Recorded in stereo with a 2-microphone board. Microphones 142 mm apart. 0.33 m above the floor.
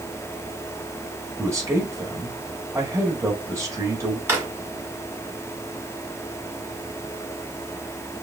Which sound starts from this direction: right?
A man speaking, at 1.4 s.